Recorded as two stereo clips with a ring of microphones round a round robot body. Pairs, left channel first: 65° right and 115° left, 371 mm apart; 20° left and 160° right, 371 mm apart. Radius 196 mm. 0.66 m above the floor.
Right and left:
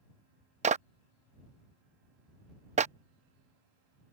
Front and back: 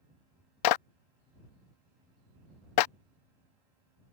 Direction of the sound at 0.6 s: 40° left.